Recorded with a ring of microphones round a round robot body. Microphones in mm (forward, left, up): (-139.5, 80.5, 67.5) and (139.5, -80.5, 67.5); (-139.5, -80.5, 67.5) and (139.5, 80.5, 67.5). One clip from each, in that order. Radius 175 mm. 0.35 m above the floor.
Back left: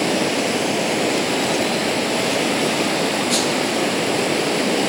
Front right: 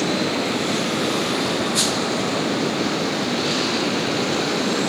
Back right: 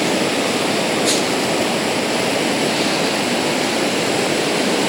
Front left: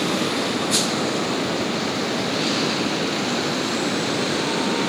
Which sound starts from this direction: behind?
Running water, at 0.0 s.